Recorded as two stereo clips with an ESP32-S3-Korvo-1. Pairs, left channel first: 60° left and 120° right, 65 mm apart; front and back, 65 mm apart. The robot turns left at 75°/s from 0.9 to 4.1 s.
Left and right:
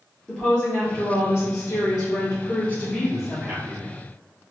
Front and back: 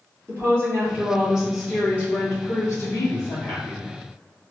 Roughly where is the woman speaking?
Behind left.